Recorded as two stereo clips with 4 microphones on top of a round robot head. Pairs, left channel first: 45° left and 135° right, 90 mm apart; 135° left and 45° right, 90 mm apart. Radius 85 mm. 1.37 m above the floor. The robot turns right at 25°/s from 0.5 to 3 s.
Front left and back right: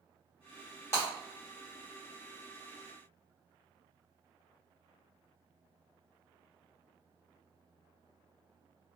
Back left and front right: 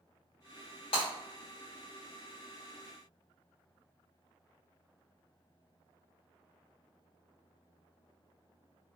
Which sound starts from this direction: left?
Breaking glass, at 0.9 s.